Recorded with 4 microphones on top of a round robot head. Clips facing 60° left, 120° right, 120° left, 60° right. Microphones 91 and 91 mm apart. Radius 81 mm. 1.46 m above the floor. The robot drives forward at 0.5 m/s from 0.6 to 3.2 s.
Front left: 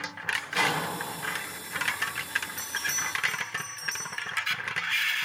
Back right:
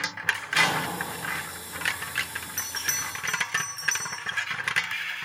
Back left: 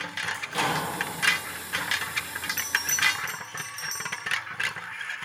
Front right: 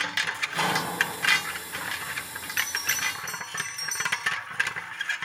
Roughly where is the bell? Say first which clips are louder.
Front left 1 dB, back left 1 dB; behind.